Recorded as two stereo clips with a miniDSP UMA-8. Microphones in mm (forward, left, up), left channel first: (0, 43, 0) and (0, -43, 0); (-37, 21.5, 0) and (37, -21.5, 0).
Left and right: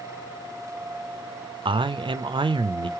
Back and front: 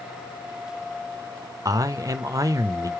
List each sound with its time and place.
1.6 s a man speaking: 80° right, 0.5 m